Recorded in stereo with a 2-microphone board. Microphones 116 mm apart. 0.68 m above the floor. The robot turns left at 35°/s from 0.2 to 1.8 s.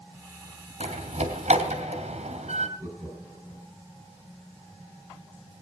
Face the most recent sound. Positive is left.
turn(degrees=-25)  # may be behind; listen again after turning